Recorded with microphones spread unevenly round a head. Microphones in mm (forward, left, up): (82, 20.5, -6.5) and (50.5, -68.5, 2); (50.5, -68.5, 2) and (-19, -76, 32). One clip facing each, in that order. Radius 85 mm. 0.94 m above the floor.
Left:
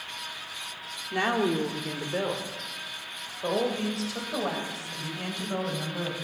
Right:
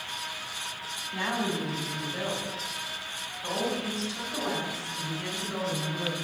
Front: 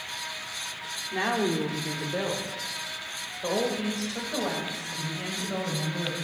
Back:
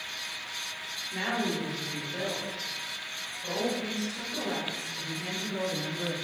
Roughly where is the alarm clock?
I don't hear an alarm clock.